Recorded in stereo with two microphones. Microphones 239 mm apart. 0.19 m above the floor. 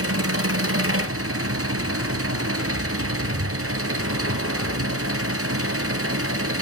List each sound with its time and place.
0.0 s an engine running: 65° right (ahead or behind), 1.8 m